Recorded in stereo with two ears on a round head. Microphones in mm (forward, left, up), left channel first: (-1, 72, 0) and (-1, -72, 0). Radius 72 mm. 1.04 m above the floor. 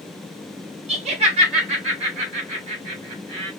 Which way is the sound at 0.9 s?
40° right (ahead or behind).